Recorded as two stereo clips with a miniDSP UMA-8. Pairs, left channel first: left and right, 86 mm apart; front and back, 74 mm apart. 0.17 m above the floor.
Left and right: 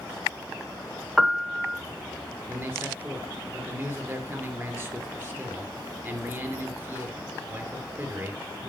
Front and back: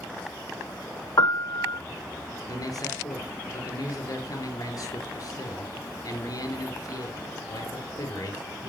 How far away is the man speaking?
About 3.5 m.